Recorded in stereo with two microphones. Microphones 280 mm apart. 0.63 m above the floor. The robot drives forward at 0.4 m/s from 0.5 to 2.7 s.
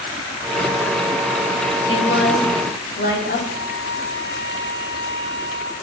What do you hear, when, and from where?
1.9 s a woman speaking: 45° left (ahead or behind), 1.5 m; by 3.4 s 40° left (ahead or behind), 1.6 m
3.5 s a flute: 55° left (ahead or behind), 3.5 m